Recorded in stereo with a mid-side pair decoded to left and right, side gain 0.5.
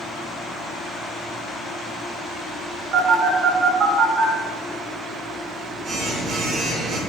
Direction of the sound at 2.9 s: 60° right.